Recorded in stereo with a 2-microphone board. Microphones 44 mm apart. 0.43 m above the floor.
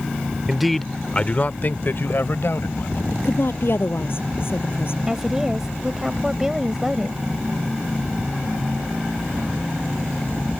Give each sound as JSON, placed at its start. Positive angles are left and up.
{"t": 0.5, "sound": "a man speaking", "side_deg": -10}
{"t": 3.1, "sound": "a woman speaking", "side_deg": 60}
{"t": 5.1, "sound": "a woman speaking", "side_deg": -10}